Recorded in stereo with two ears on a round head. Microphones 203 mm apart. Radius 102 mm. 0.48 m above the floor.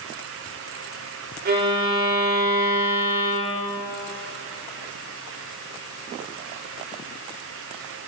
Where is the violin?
45° right (ahead or behind), 1.5 m.